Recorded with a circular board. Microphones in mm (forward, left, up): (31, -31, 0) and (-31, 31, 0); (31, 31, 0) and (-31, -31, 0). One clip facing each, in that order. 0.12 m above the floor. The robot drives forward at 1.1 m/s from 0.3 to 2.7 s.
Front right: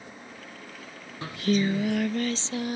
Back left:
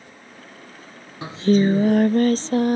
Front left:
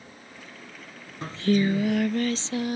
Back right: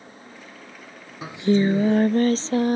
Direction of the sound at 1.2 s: 155° left.